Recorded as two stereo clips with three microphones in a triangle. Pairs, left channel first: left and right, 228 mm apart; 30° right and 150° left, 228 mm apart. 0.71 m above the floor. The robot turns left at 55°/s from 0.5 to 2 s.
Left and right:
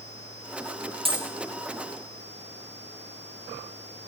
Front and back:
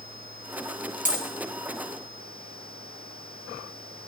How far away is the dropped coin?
About 3 m.